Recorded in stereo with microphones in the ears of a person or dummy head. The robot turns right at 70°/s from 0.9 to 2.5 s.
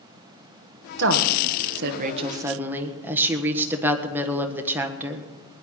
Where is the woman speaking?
120° right, 1.4 m; by 5.2 s 15° right, 1.4 m.